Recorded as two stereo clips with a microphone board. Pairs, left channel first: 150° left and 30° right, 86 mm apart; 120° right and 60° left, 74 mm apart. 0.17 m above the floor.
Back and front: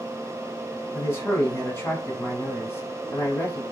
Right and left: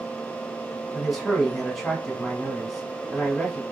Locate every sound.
0.9 s a man speaking: 150° left, 1.1 m